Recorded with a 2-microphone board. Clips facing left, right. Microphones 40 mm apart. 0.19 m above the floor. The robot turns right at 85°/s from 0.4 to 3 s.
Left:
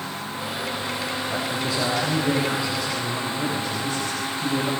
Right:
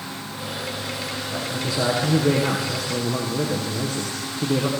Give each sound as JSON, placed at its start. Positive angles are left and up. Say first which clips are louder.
{"t": 1.3, "sound": "a man speaking", "louder": "even", "azimuth_deg": 140, "distance_m": 7.5}